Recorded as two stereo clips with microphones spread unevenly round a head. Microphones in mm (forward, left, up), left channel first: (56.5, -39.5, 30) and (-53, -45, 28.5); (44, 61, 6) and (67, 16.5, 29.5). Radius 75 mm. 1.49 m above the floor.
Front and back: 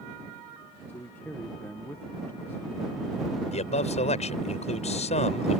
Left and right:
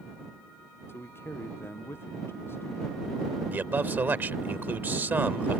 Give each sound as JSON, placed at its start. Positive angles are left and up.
{"t": 0.9, "sound": "a man speaking", "azimuth_deg": 80}
{"t": 3.5, "sound": "a man speaking", "azimuth_deg": -20}